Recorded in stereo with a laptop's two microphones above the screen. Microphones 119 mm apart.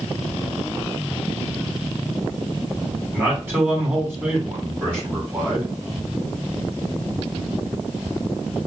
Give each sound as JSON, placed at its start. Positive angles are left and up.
{"t": 3.1, "sound": "a man speaking", "side_deg": -20, "distance_m": 2.0}